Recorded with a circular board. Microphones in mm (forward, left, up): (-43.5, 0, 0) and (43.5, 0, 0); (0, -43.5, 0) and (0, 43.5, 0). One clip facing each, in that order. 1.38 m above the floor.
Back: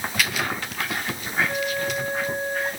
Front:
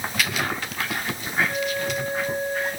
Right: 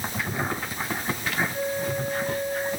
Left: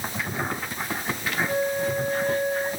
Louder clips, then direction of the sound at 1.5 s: Even, left 3 dB; 100° left.